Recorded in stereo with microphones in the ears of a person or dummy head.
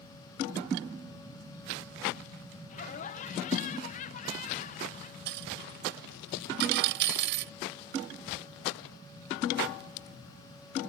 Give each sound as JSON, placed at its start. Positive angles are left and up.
{"t": 2.7, "sound": "laughter", "side_deg": 40}
{"t": 5.3, "sound": "a dropped coin", "side_deg": -55}